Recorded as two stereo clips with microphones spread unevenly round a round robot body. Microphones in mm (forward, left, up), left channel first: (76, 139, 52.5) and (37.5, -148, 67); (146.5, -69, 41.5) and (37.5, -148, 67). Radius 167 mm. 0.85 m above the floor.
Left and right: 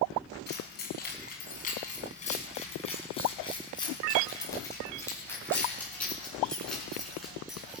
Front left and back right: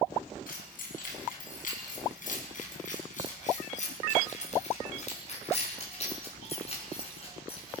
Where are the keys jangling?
25° left, 4.5 m; by 7.8 s 10° right, 6.5 m.